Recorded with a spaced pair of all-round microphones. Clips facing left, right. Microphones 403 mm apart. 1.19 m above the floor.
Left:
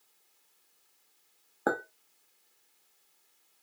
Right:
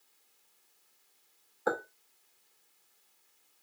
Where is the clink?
65° left (ahead or behind), 0.9 m.